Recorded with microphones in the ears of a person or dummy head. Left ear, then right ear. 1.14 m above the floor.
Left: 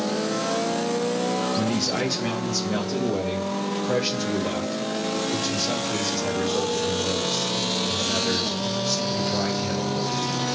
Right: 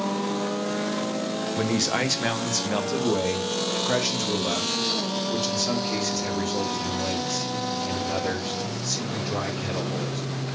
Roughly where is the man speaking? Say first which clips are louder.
Even; right.